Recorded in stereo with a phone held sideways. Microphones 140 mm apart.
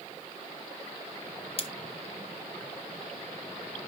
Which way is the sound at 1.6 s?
45° left (ahead or behind).